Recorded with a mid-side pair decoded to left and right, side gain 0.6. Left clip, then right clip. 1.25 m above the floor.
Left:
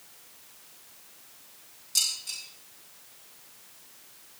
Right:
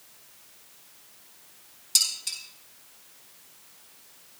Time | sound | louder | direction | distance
1.9 | dishes clattering | right 3 dB | 55° right | 10 m